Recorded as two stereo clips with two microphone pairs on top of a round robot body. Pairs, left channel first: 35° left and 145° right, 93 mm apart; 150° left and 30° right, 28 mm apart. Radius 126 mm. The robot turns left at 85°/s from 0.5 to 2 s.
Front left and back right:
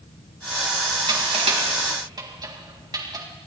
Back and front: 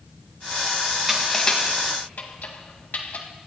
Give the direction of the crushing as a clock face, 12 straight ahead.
4 o'clock.